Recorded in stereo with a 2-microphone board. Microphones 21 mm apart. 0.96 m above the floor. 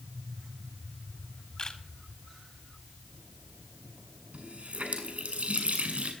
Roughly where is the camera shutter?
Left.